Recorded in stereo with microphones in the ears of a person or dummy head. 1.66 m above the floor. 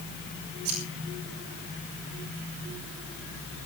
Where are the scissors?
90° right, 7 m.